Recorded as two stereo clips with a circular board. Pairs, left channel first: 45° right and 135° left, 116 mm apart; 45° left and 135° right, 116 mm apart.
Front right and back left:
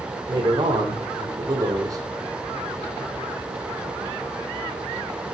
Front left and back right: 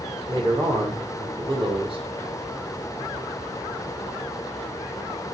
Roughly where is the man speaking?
Behind.